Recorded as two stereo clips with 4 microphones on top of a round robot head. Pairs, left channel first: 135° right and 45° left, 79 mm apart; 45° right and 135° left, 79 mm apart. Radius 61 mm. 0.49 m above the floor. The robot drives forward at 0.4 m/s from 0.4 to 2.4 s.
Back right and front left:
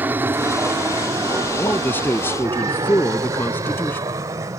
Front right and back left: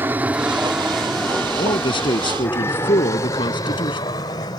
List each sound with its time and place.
0.0 s an aircraft: 90° left; by 4.6 s 10° right
1.6 s a man speaking: 65° right; by 4.0 s 70° right